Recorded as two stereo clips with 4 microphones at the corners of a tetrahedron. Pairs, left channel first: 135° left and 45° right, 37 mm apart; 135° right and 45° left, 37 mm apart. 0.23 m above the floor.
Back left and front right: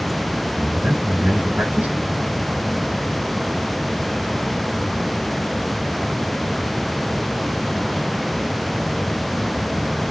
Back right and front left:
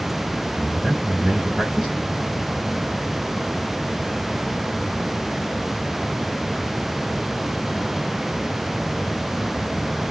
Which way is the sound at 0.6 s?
15° right.